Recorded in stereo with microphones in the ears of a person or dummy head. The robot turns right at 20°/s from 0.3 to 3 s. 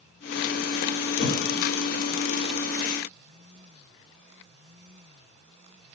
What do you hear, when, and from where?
1.2 s a thud: 40° left (ahead or behind), 4.5 m; by 1.4 s 35° left (ahead or behind), 4.5 m